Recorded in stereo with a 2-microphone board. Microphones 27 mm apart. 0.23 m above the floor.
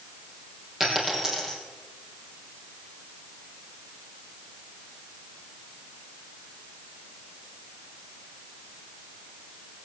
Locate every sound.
0.8 s a dropped coin: 20° right (ahead or behind), 4 m